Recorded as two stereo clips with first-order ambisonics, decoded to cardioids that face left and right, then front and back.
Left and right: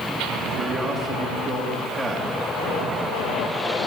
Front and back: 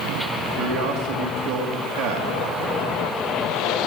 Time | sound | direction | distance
0.5 | a man speaking | 170° right | 1.9 m